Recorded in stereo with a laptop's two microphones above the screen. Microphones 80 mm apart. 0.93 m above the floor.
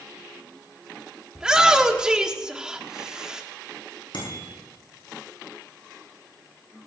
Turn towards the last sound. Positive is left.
turn(degrees=80)